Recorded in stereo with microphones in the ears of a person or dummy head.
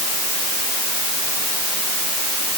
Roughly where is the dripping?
No dripping in this recording.